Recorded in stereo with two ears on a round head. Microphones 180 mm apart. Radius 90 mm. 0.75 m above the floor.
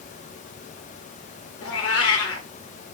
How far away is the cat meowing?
About 0.7 m.